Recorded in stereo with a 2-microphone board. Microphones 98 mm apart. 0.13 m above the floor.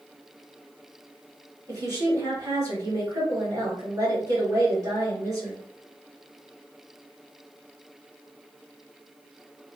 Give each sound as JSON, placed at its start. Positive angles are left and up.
{"t": 1.7, "sound": "a woman speaking", "side_deg": -35, "distance_m": 1.6}